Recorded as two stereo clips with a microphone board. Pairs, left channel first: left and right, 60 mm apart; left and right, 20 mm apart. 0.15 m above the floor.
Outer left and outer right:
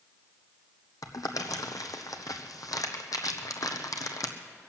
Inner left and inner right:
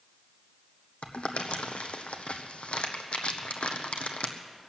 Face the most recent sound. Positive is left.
turn(degrees=85)